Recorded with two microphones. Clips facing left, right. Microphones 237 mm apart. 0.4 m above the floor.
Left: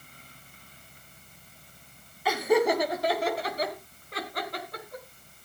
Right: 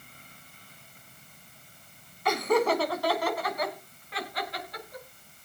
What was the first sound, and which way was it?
Laughter, 5° left (ahead or behind).